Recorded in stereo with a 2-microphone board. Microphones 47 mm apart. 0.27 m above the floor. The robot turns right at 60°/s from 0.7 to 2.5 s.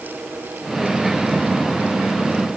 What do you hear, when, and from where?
Only background noise.